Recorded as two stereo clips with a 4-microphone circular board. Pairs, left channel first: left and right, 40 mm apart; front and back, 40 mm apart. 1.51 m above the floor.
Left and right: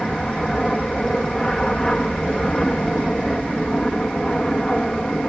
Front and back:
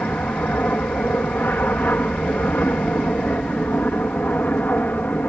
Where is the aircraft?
15° left; by 5.3 s 25° left.